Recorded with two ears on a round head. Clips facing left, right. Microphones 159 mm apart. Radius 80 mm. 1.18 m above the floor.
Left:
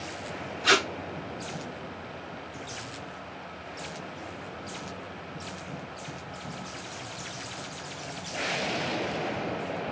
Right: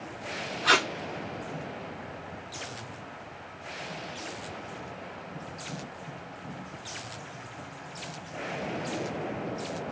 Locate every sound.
0.6 s tape being pulled: 30° left (ahead or behind), 1.0 m